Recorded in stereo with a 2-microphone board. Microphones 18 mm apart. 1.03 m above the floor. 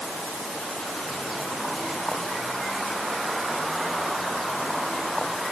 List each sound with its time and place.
Only background noise.